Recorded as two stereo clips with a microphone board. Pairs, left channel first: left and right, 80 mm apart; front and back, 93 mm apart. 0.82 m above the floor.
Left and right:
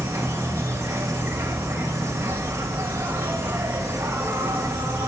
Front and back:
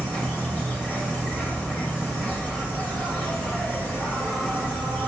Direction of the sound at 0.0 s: 60° right.